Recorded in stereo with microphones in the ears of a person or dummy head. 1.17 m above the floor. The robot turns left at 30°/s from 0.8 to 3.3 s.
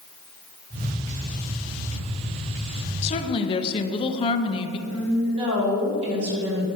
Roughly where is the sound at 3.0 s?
Left.